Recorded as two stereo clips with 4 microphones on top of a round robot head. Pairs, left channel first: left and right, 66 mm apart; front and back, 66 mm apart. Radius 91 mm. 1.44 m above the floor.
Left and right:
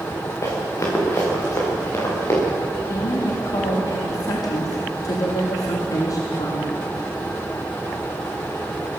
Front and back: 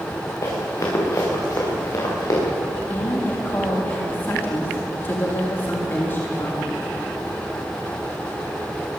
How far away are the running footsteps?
About 8 m.